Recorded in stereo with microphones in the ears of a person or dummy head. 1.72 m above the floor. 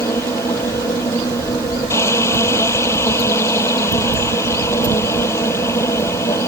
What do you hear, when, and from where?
0.0 s a machine running: 15° left (ahead or behind)